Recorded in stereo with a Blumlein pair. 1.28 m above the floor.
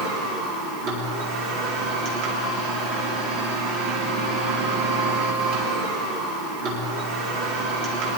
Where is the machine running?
40° right, 3.5 m.